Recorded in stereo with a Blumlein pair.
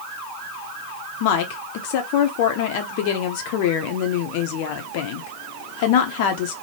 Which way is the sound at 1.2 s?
45° left.